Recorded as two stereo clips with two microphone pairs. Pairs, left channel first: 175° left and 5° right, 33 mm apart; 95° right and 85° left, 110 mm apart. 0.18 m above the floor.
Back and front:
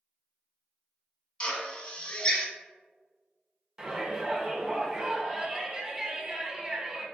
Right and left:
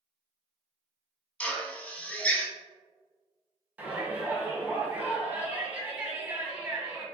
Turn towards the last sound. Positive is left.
turn(degrees=30)